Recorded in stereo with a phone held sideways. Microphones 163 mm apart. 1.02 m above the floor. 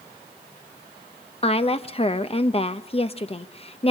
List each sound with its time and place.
1.4 s a woman speaking: 35° left (ahead or behind), 0.8 m